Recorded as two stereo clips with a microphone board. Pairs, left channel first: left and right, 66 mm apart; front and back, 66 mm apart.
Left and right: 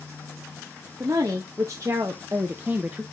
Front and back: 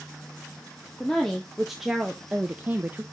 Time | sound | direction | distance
1.0 | a woman speaking | 80° right | 1.5 m